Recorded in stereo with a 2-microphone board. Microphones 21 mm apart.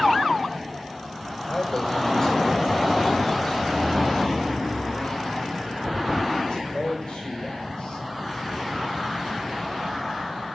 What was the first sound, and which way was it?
A man speaking, 35° left (ahead or behind).